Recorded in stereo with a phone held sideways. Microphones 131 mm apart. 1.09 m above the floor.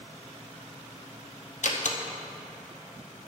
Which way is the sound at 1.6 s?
70° left (ahead or behind).